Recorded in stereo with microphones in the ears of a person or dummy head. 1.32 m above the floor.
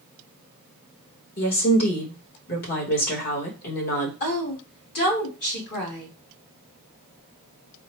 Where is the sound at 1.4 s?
45° left (ahead or behind), 1.4 m.